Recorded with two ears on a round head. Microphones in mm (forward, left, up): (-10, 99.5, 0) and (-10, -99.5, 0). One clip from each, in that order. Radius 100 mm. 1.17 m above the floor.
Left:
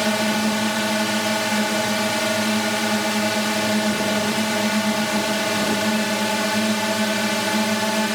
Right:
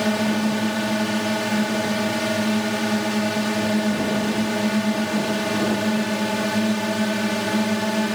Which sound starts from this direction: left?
A drone, at 0.0 s.